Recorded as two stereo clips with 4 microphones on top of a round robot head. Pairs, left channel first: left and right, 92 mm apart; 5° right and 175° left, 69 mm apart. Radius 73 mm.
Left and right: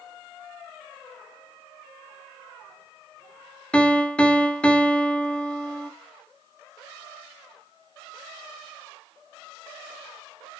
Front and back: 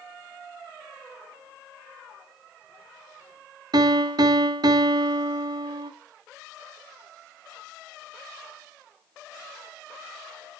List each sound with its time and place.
3.7 s a piano: 165° left, 1.5 m